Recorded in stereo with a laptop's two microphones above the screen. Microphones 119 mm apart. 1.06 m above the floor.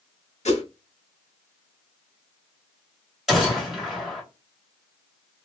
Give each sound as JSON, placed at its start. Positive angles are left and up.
{"t": 0.5, "sound": "a whoosh", "side_deg": 70, "distance_m": 1.5}
{"t": 3.3, "sound": "a gunshot", "side_deg": 0, "distance_m": 2.0}